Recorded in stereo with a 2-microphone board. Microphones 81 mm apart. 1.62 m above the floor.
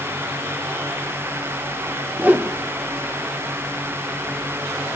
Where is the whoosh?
20° right (ahead or behind), 0.7 m.